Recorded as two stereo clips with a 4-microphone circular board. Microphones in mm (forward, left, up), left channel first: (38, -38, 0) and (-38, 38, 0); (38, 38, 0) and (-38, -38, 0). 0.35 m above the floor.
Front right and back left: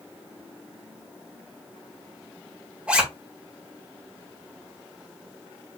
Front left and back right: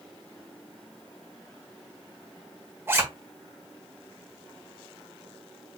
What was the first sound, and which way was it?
A zipper, 160° right.